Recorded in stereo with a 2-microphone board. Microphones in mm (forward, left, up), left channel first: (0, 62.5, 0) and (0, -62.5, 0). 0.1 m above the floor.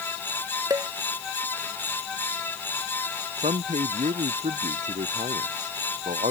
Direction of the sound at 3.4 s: 75° right (ahead or behind).